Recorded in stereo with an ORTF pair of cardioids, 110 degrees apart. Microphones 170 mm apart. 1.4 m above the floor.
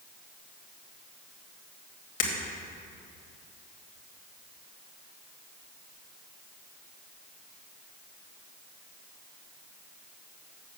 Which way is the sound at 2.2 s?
55° left.